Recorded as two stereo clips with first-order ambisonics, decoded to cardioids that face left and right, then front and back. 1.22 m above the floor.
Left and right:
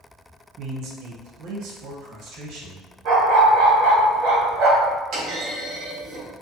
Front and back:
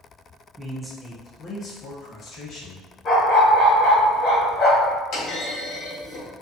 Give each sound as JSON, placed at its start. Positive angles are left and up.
{"t": 0.6, "sound": "a man speaking", "azimuth_deg": -115, "distance_m": 0.6}
{"t": 3.0, "sound": "a dog barking", "azimuth_deg": -55, "distance_m": 1.8}
{"t": 5.1, "sound": "a clunk", "azimuth_deg": -50, "distance_m": 1.8}